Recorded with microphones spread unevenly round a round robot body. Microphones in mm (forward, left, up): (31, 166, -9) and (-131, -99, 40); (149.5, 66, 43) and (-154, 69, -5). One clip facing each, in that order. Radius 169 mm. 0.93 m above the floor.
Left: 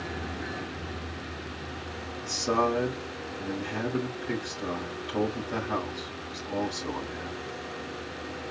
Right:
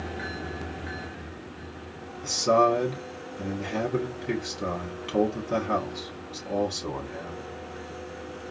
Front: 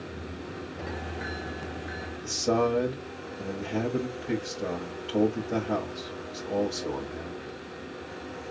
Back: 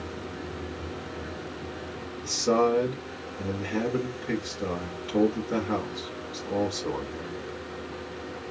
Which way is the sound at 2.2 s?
105° right.